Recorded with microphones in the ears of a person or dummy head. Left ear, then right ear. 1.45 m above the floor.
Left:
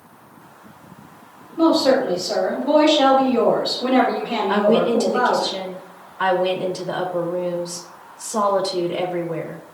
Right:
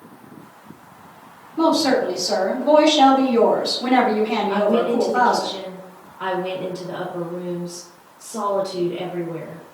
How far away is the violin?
No violin in this recording.